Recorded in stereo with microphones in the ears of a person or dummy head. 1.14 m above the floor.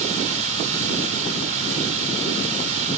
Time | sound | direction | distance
0.0 | running water | 40° right (ahead or behind) | 3 m